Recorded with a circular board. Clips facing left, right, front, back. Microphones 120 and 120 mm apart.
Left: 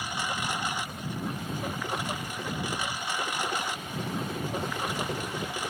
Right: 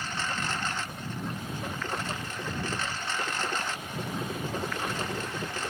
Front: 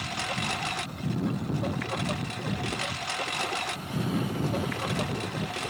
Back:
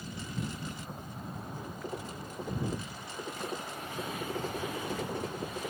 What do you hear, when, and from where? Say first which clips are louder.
0.0 s a lawn mower: left 1 dB, front 6 dB; 10° left